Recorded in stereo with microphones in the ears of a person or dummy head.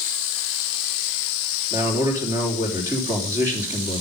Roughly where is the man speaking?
Right.